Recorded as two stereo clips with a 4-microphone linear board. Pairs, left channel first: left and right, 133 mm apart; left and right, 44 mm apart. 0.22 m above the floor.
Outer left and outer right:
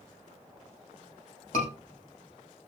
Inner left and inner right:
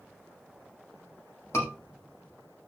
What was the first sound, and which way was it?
A scream, 80° left.